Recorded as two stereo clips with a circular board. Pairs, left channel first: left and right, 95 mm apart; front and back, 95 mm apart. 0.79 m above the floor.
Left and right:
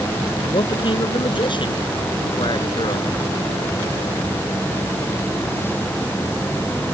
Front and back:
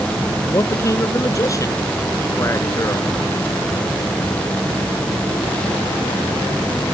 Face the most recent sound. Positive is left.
turn(degrees=55)